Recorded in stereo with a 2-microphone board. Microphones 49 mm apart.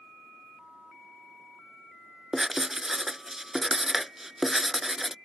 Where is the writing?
5° right (ahead or behind).